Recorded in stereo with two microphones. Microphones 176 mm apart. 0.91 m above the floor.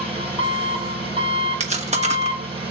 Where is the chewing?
40° right (ahead or behind), 1.2 m.